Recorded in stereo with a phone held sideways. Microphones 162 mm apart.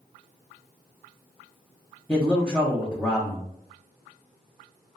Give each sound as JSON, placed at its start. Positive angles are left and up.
{"t": 2.1, "sound": "a man speaking", "side_deg": 10, "distance_m": 0.7}